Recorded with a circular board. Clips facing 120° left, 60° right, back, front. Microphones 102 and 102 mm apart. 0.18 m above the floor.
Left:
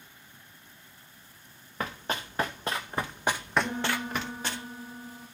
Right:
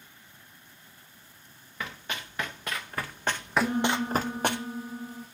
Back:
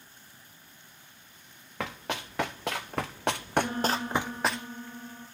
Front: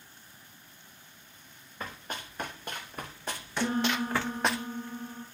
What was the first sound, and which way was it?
Running footsteps, 170° left.